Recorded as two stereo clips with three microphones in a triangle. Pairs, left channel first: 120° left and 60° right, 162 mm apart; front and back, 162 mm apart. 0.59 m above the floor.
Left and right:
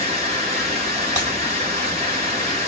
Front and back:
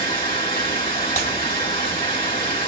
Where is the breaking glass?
20° right, 2 m.